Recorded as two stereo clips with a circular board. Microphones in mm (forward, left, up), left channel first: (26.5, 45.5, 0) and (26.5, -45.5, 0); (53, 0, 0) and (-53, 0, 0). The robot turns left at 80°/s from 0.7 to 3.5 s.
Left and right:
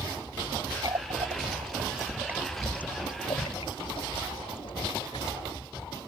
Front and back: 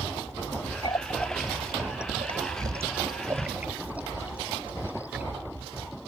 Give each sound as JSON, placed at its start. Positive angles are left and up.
{"t": 0.8, "sound": "a running tap", "azimuth_deg": -40}